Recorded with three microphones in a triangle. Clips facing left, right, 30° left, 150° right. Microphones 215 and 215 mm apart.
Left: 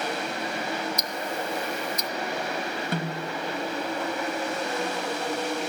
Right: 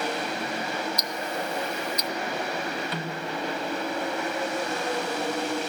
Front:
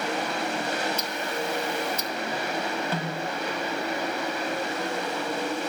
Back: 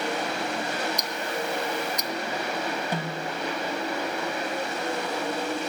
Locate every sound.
1.0 s ticking: 135° left, 0.5 m
2.9 s a snare drum: 135° left, 1.3 m